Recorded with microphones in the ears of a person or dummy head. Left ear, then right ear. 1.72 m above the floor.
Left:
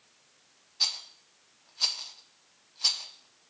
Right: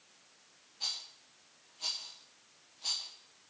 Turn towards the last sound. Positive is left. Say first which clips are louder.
# left 9 dB
turn(degrees=60)  # may be behind; listen again after turning